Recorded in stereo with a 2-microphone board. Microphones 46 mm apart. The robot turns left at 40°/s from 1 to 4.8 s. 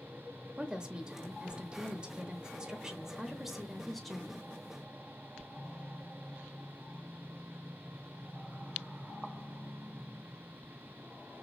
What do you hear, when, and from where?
0.6 s a woman speaking: 20° right (ahead or behind), 0.8 m; by 4.5 s 10° left (ahead or behind), 0.8 m